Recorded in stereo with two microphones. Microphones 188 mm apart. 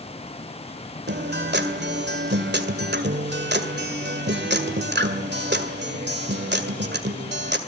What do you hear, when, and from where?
1.1 s a guitar: 65° right (ahead or behind), 2 m